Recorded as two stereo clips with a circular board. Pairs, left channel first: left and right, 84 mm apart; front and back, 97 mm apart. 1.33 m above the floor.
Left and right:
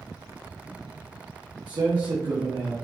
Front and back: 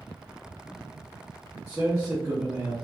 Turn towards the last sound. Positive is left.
turn(degrees=-120)